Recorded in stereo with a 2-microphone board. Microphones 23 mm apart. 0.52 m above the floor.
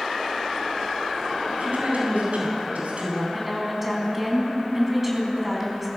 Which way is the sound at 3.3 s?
10° right (ahead or behind).